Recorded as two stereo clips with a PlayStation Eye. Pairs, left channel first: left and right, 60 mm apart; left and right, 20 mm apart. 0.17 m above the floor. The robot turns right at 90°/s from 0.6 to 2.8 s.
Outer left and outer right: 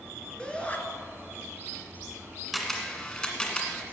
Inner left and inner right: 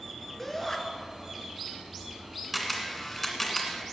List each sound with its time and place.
0.4 s a shout: 15° left (ahead or behind), 2.5 m; by 0.8 s 30° left (ahead or behind), 2.5 m
2.5 s a camera shutter: 5° right (ahead or behind), 1.9 m; by 3.8 s 10° left (ahead or behind), 1.9 m